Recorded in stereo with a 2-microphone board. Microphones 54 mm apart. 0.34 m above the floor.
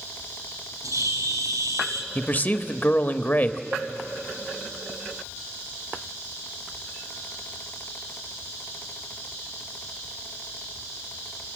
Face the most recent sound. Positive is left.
turn(degrees=-65)  # may be behind; listen again after turning